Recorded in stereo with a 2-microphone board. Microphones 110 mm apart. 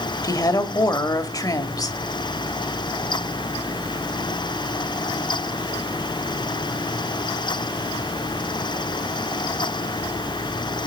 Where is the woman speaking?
35° left (ahead or behind), 1.6 m.